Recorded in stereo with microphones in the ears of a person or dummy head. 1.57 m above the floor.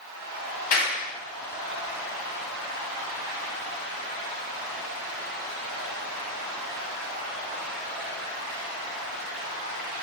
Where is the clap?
45° left (ahead or behind), 1.5 m.